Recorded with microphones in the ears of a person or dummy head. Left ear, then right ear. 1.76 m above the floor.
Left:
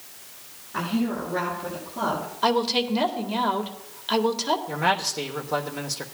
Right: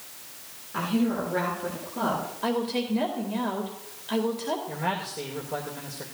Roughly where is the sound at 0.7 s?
Centre.